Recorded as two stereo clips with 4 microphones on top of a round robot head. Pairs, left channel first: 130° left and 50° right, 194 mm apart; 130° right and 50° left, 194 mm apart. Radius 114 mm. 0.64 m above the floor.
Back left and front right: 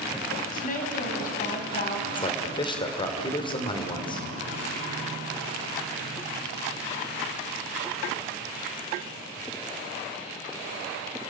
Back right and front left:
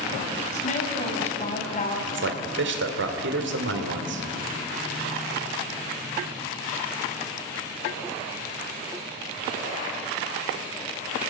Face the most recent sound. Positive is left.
turn(degrees=65)